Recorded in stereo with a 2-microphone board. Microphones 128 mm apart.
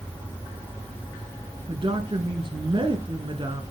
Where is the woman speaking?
45° right (ahead or behind), 1.5 m.